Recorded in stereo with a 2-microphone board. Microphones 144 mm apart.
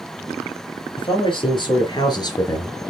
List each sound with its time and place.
1.0 s a man speaking: 35° left (ahead or behind), 4 m; by 2.8 s 25° left (ahead or behind), 2.5 m